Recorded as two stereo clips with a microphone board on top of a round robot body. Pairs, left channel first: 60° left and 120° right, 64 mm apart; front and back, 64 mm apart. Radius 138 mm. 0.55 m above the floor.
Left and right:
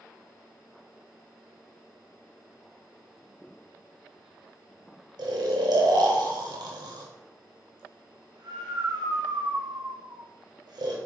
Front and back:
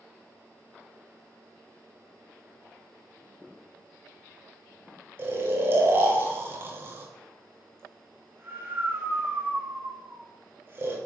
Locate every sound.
5.2 s snoring: 125° right, 1.1 m